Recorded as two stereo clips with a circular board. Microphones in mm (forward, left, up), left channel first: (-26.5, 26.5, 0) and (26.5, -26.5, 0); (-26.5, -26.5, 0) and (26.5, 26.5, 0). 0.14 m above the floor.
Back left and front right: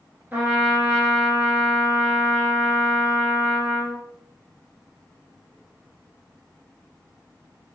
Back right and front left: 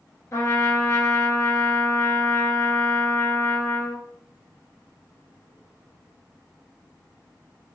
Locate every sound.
0.3 s a trumpet: 105° right, 1.1 m